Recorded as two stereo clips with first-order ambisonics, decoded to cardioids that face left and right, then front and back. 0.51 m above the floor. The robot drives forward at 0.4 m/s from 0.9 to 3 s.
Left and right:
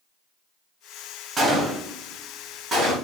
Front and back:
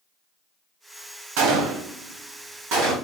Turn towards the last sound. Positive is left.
turn(degrees=-175)